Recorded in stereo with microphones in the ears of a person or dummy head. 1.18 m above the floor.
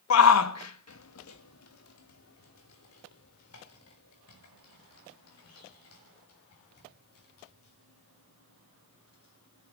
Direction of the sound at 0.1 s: 70° left (ahead or behind).